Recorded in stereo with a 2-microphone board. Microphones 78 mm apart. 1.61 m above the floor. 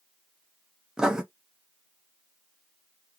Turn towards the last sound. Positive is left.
turn(degrees=-10)  # may be behind; listen again after turning